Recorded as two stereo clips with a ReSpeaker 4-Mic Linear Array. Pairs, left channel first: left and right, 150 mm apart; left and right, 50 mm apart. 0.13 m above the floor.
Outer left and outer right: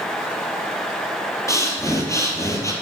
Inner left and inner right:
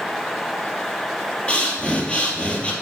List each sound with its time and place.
1.5 s breathing: 20° left (ahead or behind), 2 m